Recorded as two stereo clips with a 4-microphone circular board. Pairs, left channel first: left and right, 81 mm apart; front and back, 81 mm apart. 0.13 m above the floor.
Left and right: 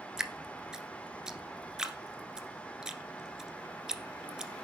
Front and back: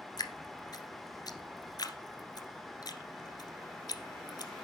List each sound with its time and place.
0.2 s dripping: 10° right, 1.3 m